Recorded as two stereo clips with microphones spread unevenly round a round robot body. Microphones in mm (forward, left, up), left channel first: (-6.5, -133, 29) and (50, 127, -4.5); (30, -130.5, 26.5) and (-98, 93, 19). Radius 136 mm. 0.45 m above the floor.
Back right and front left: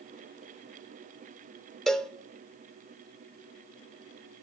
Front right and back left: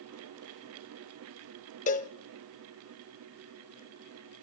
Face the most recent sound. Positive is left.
turn(degrees=-5)